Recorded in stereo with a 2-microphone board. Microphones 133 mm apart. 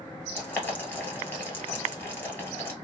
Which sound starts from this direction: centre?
Boiling, at 0.3 s.